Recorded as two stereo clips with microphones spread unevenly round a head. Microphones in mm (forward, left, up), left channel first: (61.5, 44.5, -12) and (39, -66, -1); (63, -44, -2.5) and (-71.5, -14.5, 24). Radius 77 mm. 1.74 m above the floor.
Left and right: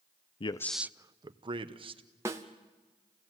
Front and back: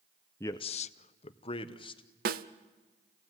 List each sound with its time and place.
0.4 s a man speaking: 70° left, 0.5 m; by 2.0 s 70° right, 1.8 m
2.2 s a snare drum: 175° right, 0.8 m